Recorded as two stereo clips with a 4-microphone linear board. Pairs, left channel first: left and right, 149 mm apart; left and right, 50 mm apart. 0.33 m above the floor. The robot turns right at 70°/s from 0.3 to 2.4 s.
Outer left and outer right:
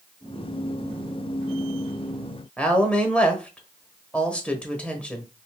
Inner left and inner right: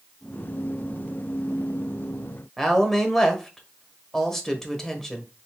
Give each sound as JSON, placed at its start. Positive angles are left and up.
{"t": 2.6, "sound": "a woman speaking", "side_deg": 10, "distance_m": 1.0}